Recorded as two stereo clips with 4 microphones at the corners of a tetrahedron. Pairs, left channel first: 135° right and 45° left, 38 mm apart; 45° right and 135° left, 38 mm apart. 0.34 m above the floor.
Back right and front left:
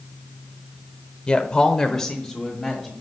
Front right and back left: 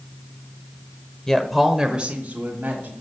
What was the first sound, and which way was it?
A woman speaking, 100° right.